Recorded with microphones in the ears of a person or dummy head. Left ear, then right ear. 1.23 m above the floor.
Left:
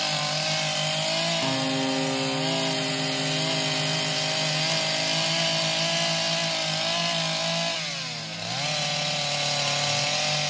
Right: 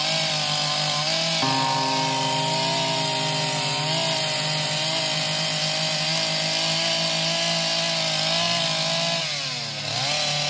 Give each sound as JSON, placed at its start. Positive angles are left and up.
{"t": 1.4, "sound": "a guitar", "side_deg": -30, "distance_m": 0.6}